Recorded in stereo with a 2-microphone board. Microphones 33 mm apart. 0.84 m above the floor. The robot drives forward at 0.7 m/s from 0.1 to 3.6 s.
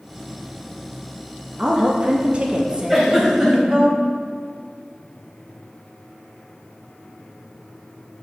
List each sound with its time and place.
1.6 s a woman speaking: 30° right (ahead or behind), 0.7 m; by 3.9 s 20° right (ahead or behind), 1.2 m
2.9 s a giggle: 5° right (ahead or behind), 2.0 m